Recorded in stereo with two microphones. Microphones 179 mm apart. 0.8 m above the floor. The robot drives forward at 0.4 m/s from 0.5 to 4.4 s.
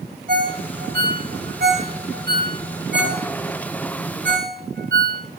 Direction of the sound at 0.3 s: 55° right (ahead or behind).